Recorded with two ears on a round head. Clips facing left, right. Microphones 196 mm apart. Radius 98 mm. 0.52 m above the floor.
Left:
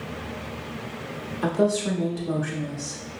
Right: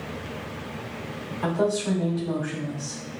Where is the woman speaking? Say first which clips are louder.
Left 2 dB; 35° left (ahead or behind), 1.3 m.